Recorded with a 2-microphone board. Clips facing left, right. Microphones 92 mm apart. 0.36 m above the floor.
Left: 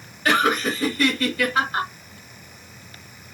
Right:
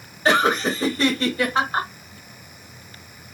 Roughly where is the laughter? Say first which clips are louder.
Right 1 dB; right.